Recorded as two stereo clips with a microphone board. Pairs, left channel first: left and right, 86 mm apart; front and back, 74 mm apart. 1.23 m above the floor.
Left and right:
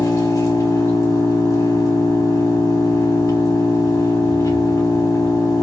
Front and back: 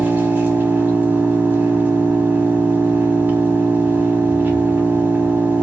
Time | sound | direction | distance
0.0 | an engine running | 125° left | 1.1 m